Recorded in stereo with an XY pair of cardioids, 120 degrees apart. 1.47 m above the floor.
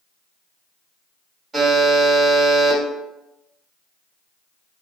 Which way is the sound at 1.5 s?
25° right.